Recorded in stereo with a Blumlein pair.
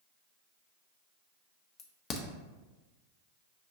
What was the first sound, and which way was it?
A crack, 25° left.